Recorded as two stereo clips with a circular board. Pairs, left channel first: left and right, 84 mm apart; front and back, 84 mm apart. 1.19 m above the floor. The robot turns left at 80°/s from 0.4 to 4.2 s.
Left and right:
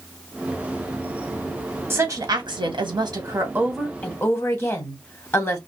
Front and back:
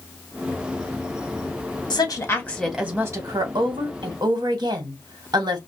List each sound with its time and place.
1.9 s a woman speaking: 30° right, 1.4 m; by 5.6 s 150° left, 1.4 m